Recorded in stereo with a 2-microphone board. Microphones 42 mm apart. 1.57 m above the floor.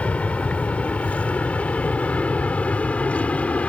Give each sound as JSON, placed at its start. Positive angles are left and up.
{"t": 0.0, "sound": "an aircraft", "side_deg": 30}